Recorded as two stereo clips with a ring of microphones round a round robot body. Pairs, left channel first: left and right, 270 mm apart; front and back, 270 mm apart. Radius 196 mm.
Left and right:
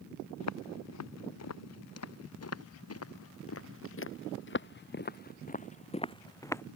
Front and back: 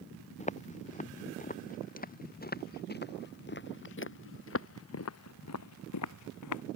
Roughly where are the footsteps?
Ahead left.